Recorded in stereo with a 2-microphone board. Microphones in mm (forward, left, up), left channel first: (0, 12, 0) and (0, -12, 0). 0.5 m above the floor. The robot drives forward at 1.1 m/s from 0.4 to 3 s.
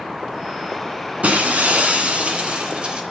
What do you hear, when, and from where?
1.2 s breaking glass: 80° right, 2.5 m; by 3.0 s 55° right (ahead or behind), 3 m